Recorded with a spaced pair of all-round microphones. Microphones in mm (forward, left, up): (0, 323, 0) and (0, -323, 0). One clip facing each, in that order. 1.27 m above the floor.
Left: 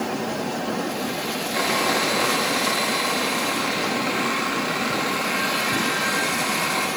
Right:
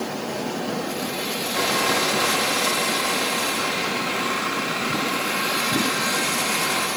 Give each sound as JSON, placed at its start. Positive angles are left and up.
{"t": 1.5, "sound": "sawing", "side_deg": -55, "distance_m": 4.0}